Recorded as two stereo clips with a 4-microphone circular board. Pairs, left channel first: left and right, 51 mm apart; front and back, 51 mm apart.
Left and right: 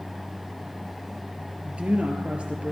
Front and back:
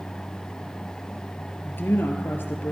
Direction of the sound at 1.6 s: 30° right.